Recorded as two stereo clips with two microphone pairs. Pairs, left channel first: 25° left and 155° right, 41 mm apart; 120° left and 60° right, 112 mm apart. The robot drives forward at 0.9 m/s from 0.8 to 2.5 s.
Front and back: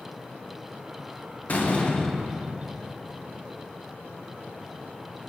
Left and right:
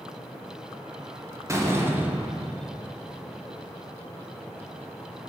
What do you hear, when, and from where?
1.5 s a door slam: 5° right, 0.9 m; by 2.8 s 165° right, 0.6 m